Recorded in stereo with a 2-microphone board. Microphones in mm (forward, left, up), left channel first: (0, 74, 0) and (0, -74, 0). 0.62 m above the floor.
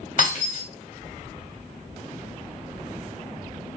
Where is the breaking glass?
65° left (ahead or behind), 1.7 m.